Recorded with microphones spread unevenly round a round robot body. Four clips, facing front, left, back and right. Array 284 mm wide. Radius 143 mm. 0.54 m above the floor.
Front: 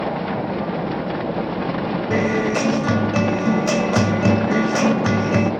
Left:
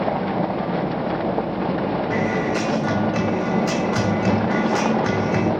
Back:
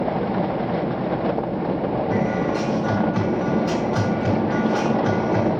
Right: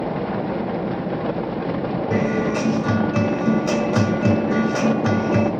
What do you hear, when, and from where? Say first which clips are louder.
2.1 s a guitar: right 1 dB, front 2 dB; 30° right, 2 m